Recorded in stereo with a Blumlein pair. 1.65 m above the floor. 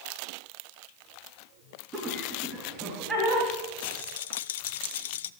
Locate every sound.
1.9 s laughter: 20° right, 3.5 m; by 3.5 s 10° right, 5 m
3.8 s a rattle: 55° left, 0.6 m